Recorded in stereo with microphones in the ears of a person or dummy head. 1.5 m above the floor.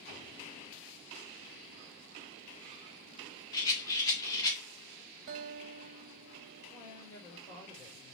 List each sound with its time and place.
3.5 s a rattle: 20° left (ahead or behind), 2.5 m
5.3 s a guitar: 50° right (ahead or behind), 1.2 m
6.7 s a woman speaking: 20° left (ahead or behind), 3.5 m